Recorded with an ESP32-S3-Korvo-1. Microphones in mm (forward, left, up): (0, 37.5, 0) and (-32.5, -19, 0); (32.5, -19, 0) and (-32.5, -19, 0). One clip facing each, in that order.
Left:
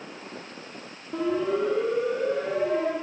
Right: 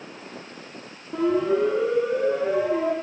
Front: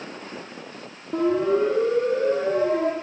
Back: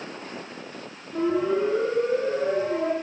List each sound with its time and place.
1.1 s a siren: 30° right, 9.5 m; by 2.9 s 40° right, 10.5 m